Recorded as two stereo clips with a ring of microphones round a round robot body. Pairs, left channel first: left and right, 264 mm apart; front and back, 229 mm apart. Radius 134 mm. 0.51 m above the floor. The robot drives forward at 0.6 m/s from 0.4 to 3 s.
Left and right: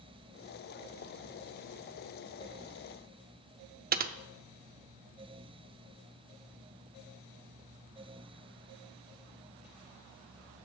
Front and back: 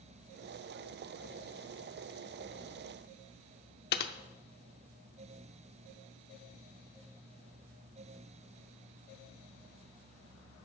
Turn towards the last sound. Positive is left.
turn(degrees=-40)